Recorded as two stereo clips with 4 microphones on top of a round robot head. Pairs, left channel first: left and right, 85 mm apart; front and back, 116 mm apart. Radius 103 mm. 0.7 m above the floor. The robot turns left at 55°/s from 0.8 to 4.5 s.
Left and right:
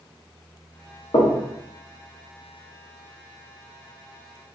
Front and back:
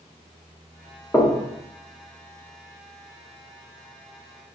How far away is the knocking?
About 0.9 m.